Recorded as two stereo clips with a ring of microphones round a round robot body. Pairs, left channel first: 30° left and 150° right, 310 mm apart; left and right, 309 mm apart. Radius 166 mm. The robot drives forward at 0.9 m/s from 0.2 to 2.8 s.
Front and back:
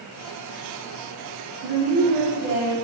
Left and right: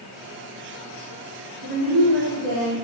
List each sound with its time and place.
1.6 s a woman speaking: 95° right, 2.5 m; by 2.8 s 120° right, 2.5 m